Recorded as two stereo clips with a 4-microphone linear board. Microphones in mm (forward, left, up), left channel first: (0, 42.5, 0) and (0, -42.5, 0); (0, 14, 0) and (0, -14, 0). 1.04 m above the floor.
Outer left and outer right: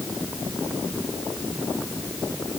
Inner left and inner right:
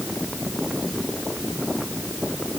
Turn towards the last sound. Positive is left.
No sound to turn to.